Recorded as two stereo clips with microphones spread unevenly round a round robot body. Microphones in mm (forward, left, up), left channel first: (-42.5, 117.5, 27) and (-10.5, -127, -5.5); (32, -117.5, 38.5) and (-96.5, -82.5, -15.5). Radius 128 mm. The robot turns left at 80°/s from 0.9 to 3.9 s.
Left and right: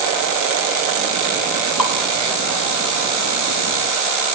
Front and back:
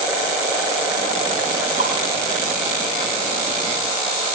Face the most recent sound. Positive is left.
turn(degrees=-60)